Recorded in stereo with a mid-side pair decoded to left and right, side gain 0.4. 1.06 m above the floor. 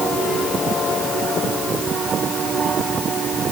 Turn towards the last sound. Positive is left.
No sound to turn to.